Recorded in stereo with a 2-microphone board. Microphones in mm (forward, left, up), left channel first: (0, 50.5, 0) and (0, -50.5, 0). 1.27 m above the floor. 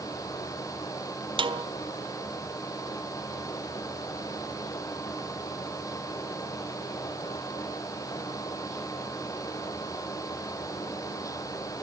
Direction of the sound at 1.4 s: 60° right (ahead or behind).